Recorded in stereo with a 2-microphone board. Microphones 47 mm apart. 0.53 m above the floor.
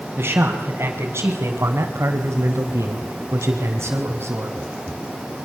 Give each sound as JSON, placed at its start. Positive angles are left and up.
{"t": 0.2, "sound": "a man speaking", "side_deg": -45, "distance_m": 4.5}